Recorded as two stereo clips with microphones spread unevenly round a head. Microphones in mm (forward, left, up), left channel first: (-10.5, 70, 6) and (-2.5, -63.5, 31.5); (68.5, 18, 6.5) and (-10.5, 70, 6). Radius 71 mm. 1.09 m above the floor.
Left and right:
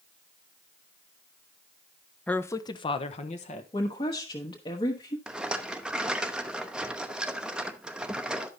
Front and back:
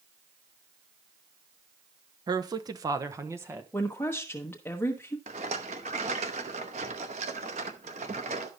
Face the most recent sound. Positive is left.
turn(degrees=-170)